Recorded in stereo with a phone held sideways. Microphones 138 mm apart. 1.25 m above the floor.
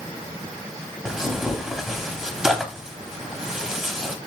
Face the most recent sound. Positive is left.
turn(degrees=-5)  # may be behind; listen again after turning